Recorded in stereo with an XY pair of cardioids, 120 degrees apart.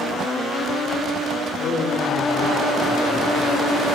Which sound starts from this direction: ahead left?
A man speaking, at 1.6 s.